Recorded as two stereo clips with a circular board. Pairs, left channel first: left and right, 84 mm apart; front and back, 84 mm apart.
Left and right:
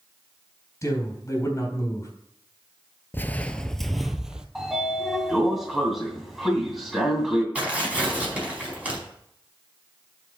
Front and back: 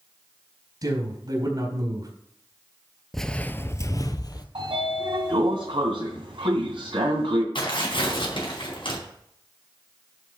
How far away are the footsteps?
About 0.6 m.